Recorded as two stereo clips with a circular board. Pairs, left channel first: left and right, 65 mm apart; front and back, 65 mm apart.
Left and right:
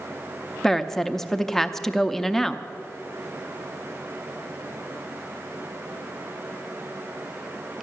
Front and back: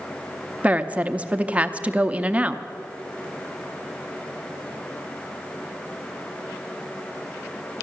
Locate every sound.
0.6 s a woman speaking: 165° left, 0.6 m